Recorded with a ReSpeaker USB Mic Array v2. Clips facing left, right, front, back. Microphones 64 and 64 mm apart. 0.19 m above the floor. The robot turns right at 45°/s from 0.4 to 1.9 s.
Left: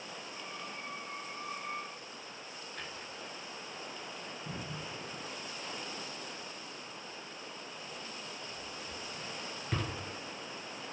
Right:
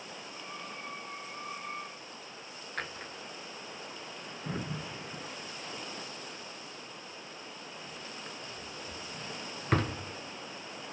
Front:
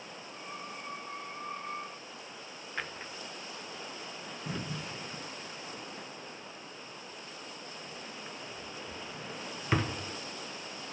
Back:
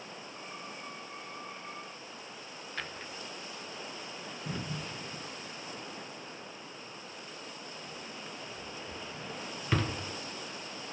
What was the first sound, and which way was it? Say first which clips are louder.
A drawer: right 6 dB, front 2 dB; 70° right.